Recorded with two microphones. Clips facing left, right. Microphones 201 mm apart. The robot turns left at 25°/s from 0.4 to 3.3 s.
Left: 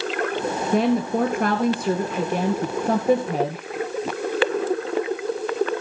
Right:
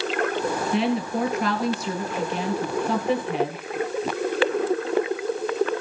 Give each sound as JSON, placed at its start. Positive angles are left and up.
{"t": 0.7, "sound": "a woman speaking", "azimuth_deg": 120, "distance_m": 2.0}